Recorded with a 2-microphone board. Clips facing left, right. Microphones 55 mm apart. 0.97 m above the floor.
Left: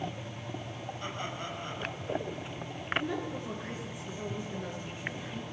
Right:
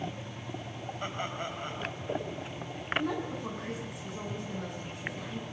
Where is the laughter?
25° right (ahead or behind), 6 m.